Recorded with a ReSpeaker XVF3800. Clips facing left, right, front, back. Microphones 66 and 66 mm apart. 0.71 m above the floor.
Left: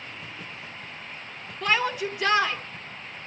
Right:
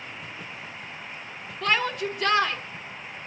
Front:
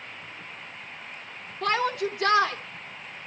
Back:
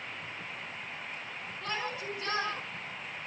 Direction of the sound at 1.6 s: 10° left.